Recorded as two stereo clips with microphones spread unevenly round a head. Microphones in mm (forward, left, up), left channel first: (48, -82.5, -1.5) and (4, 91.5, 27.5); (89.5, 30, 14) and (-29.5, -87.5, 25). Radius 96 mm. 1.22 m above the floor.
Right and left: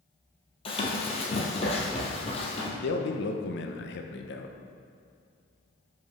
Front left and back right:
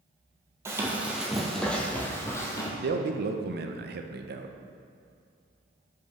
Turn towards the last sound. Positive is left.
turn(degrees=-110)